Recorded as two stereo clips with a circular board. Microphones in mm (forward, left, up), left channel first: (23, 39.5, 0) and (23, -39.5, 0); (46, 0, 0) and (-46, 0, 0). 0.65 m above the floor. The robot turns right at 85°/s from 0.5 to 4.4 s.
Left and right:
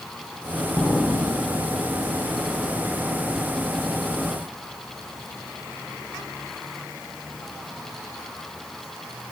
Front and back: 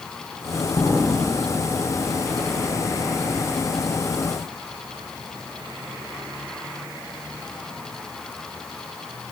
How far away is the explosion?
About 2.5 m.